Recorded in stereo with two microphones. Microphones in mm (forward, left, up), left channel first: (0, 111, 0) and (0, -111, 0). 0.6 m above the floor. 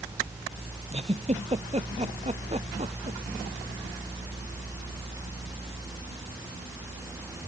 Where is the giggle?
30° right (ahead or behind).